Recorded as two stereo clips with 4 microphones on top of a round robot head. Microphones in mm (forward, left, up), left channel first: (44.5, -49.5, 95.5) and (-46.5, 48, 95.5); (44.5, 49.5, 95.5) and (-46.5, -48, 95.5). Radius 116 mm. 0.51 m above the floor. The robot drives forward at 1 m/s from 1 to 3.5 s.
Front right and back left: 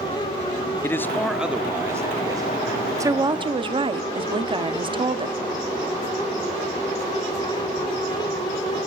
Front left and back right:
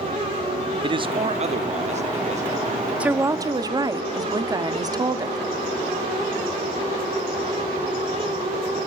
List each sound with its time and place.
0.8 s a man speaking: 110° right, 0.8 m; by 2.9 s 170° right, 2 m
3.0 s a woman speaking: 155° left, 0.7 m; by 5.4 s 170° left, 1.0 m